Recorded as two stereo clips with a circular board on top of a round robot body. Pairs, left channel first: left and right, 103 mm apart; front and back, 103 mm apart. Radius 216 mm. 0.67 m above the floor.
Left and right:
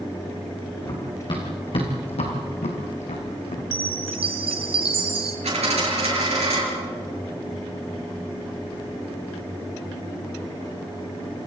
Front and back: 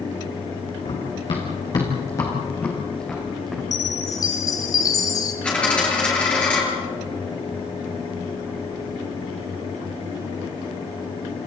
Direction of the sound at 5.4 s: 80° right.